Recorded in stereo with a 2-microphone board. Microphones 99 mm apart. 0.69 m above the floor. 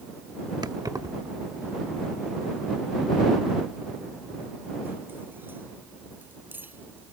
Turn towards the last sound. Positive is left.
turn(degrees=-20)  # may be behind; listen again after turning